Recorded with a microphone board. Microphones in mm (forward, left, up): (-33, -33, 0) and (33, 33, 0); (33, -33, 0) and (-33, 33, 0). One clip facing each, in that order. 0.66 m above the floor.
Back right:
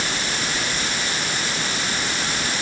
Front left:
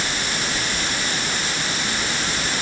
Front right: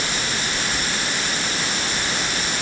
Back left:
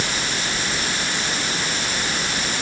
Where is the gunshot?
I don't hear a gunshot.